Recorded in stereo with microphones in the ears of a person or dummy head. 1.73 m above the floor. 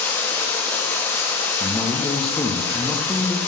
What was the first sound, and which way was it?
Running water, 10° left (ahead or behind).